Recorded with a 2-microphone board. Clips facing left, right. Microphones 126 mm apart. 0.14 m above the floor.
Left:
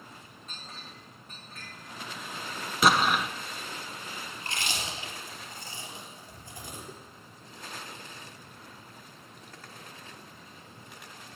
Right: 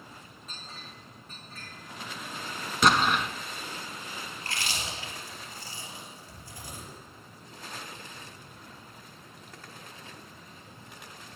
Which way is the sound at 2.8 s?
5° left (ahead or behind).